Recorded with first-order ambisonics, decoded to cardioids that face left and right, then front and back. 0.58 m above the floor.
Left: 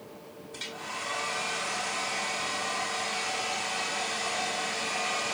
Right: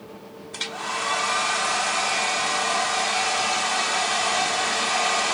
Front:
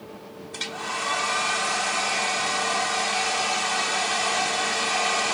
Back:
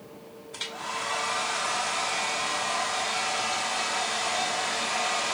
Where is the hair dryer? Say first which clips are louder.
Right 9 dB, front 3 dB; 75° right, 0.9 m.